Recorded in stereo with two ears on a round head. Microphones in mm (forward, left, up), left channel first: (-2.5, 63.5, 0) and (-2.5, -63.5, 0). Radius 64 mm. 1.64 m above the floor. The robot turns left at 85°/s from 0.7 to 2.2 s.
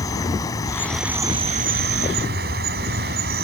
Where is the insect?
25° left; by 3.4 s 105° right.